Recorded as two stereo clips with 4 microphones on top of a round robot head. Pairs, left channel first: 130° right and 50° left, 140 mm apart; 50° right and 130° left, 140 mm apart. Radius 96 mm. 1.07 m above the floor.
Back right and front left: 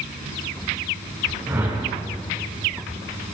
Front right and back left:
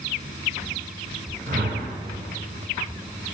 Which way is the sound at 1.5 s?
115° left.